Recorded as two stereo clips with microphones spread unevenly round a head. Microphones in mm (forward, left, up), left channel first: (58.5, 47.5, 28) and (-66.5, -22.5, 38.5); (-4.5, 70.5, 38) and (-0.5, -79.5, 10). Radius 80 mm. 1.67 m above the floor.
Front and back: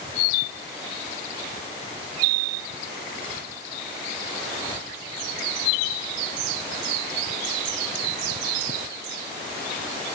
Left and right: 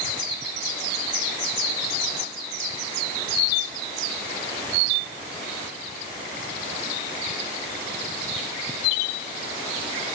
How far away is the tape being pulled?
No tape being pulled in this recording.